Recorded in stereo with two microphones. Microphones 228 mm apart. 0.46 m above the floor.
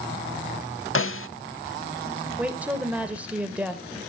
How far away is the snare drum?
About 0.6 m.